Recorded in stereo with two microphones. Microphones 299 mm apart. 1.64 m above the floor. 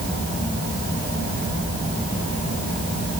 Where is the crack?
No crack in this recording.